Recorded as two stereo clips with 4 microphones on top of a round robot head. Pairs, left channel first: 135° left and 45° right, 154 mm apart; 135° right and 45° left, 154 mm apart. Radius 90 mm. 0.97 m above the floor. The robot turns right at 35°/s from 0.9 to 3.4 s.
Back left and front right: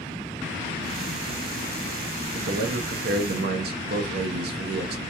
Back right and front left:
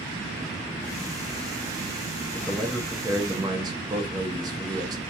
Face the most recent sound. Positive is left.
turn(degrees=-20)